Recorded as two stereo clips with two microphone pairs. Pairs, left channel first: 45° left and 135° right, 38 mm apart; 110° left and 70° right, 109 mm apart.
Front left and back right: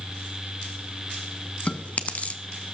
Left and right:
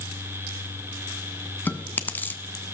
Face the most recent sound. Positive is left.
turn(degrees=50)